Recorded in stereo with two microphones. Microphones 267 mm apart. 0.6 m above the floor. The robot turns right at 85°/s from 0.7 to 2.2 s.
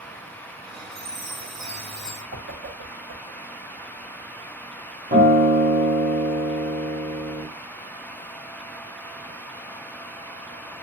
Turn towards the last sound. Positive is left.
turn(degrees=-30)  # may be behind; listen again after turning